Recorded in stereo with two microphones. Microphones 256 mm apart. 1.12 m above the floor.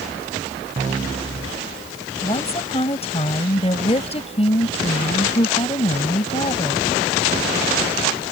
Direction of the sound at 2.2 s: 25° left (ahead or behind).